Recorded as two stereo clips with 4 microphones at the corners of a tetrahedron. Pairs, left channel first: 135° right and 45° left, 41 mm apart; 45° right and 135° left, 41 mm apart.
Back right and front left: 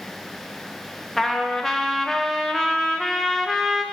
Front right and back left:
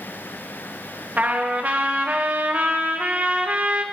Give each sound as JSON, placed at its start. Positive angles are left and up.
{"t": 1.2, "sound": "a trumpet", "azimuth_deg": 150, "distance_m": 0.6}